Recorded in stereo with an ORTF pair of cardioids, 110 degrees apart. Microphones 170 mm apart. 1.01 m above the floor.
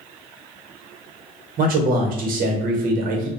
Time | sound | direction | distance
1.6 | a man speaking | 55° right | 0.9 m